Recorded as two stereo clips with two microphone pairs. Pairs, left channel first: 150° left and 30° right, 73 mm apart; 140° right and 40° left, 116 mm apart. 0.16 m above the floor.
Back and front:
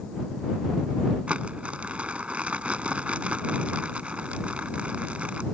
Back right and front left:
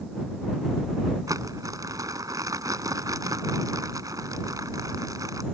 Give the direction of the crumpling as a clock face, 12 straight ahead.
11 o'clock.